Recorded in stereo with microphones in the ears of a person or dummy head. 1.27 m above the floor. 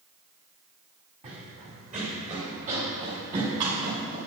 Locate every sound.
1.2 s running footsteps: 40° right (ahead or behind), 2.5 m; by 4.2 s 35° right (ahead or behind), 6 m